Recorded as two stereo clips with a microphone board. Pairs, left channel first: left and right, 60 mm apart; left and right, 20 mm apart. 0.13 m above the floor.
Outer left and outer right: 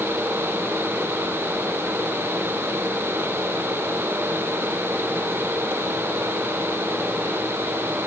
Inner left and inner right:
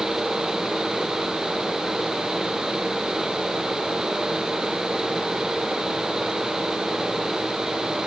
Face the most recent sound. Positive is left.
No sound to turn to.